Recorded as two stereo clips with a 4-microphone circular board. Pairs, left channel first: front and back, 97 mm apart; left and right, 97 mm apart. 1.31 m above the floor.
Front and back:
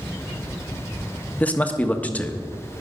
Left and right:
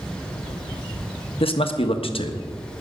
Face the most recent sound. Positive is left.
turn(degrees=75)